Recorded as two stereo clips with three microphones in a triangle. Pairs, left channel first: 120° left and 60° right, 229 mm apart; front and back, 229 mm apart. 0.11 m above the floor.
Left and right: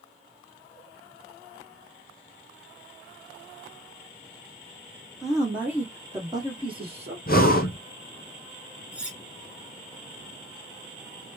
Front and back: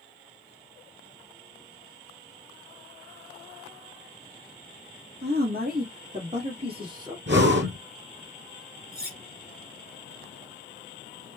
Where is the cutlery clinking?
145° right, 1.5 m.